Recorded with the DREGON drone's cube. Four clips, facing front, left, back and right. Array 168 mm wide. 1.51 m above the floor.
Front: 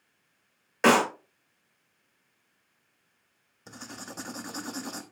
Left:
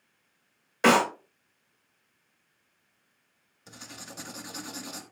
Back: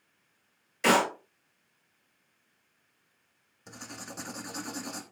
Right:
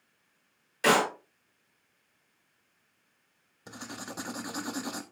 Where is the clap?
35° left, 6.5 m.